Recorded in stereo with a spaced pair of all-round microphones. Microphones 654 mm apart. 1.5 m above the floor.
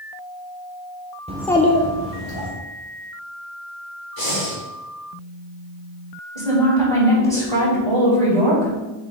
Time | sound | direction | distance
1.3 | a child speaking | 10° right (ahead or behind) | 0.6 m
4.2 | breathing | 35° left (ahead or behind) | 3 m
6.3 | a woman speaking | 80° right | 3 m